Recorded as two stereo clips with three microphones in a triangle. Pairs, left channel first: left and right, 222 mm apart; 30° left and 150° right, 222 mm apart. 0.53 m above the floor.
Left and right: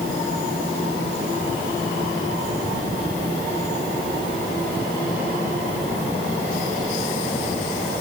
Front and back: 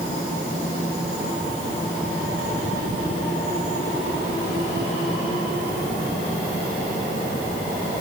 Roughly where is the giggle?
No giggle in this recording.